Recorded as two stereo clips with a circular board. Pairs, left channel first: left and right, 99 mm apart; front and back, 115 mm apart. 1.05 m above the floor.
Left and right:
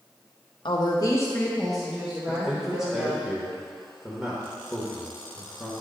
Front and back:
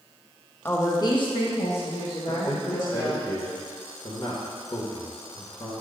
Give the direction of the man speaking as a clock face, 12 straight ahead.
12 o'clock.